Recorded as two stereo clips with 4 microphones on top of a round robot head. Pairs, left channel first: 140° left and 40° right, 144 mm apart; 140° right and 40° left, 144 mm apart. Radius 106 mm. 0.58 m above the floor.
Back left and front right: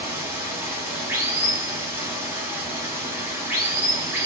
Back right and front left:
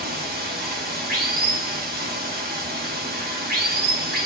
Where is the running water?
35° left, 0.8 m.